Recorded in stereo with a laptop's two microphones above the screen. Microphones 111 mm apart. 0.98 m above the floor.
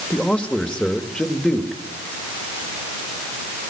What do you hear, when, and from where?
0.1 s a man speaking: 10° left (ahead or behind), 1.9 m